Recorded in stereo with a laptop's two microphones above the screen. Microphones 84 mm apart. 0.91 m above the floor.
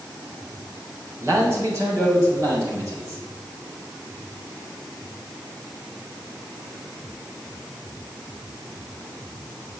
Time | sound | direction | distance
1.2 | a man speaking | 35° right (ahead or behind) | 3.5 m